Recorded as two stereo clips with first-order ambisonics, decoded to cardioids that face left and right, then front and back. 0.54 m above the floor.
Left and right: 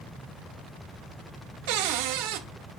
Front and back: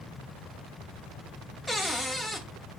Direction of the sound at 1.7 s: 90° right.